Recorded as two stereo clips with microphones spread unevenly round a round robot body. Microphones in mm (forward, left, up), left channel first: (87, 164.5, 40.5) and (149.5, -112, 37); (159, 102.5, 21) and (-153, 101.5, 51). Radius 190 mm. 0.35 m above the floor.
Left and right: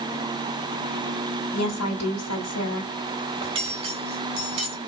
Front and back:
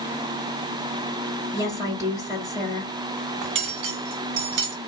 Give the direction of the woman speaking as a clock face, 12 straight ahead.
9 o'clock.